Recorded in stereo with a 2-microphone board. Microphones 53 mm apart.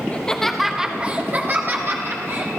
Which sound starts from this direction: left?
Laughter, at 0.1 s.